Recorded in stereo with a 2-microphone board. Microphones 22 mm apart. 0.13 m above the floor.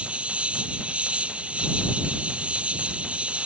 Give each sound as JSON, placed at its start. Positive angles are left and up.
{"t": 0.0, "sound": "an insect", "side_deg": -65}